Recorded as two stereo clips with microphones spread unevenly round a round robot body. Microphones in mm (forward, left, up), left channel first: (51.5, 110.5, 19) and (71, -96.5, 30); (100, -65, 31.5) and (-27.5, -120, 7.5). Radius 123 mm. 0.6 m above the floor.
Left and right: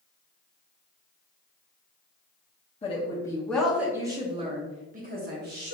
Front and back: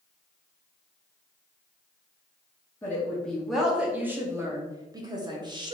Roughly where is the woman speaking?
Left.